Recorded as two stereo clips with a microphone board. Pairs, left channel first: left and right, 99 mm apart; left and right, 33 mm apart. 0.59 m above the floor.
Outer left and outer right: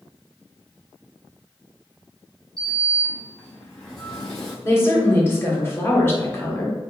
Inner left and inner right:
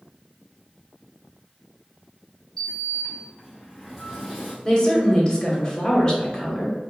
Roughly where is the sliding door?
Centre.